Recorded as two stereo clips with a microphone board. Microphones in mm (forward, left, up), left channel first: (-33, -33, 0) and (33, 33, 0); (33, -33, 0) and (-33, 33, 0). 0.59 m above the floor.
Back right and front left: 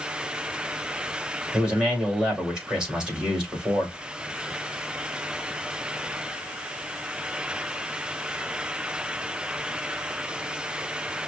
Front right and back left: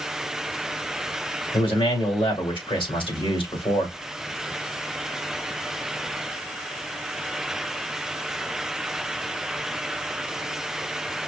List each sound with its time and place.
1.5 s a man speaking: 35° right, 3.5 m